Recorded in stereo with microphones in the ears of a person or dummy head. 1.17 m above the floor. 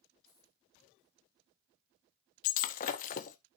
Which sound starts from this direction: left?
Breaking glass, at 2.4 s.